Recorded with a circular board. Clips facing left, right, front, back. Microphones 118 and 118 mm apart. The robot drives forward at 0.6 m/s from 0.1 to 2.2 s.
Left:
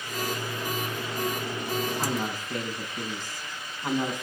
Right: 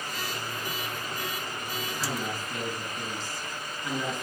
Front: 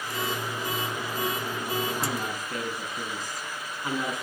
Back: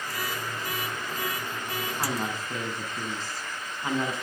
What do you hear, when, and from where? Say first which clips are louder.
2.0 s a woman speaking: left 3 dB, even; 120° left, 7 m